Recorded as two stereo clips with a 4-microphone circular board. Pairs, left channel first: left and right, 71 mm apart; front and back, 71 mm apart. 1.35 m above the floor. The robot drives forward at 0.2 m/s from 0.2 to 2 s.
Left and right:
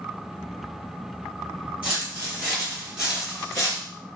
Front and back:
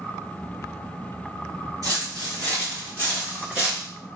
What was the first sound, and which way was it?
Footsteps, 160° right.